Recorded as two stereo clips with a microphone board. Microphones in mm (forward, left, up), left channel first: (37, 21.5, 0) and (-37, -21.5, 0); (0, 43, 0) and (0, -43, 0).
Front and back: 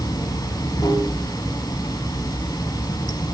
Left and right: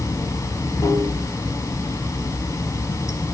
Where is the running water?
50° left, 0.8 m.